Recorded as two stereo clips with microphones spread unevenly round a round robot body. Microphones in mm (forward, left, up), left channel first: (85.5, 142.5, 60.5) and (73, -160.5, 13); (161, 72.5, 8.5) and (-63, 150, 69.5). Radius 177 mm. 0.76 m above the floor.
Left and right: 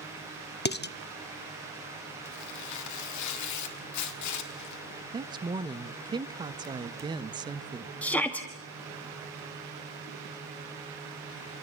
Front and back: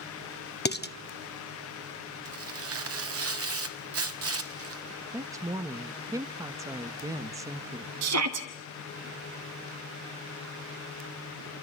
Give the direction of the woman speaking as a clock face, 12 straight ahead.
4 o'clock.